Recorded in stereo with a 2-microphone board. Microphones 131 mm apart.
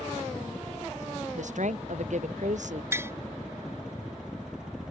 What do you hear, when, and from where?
0.0 s a helicopter: 5° right (ahead or behind)
1.4 s a woman speaking: 65° right (ahead or behind)
2.9 s tapping: 20° right (ahead or behind)